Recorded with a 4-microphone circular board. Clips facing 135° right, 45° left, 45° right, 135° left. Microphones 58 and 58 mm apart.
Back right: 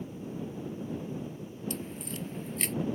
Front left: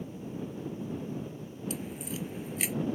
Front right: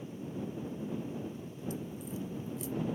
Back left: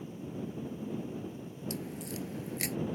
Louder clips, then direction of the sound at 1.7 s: Front left 2 dB, back left 1 dB; 130° left.